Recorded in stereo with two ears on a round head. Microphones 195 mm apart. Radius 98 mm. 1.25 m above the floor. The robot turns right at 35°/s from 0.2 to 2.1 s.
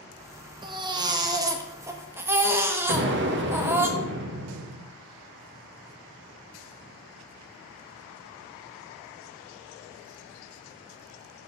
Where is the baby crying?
20° right (ahead or behind), 0.5 m; by 3.9 s 10° right (ahead or behind), 0.5 m.